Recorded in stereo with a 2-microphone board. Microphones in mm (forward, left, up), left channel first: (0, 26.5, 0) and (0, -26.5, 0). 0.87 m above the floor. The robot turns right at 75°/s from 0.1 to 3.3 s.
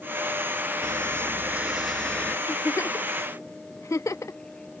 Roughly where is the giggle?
Left.